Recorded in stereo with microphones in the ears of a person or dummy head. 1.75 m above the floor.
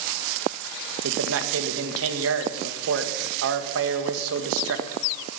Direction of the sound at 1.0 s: 70° right (ahead or behind).